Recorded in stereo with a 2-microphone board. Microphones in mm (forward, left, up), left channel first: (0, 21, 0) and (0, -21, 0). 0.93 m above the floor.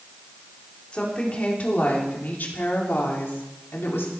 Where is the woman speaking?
25° left (ahead or behind), 2.5 m; by 4.1 s 75° left (ahead or behind), 2.5 m.